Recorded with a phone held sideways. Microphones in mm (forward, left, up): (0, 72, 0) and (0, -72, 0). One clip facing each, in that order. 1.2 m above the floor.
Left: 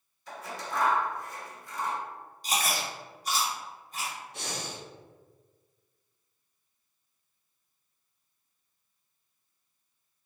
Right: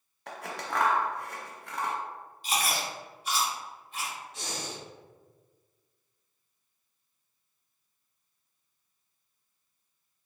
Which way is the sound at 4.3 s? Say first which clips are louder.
Even; 60° left (ahead or behind).